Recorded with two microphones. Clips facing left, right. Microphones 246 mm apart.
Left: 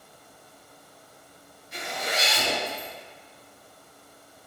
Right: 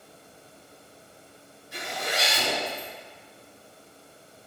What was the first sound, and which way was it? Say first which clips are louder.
A zipper: even; 20° left (ahead or behind).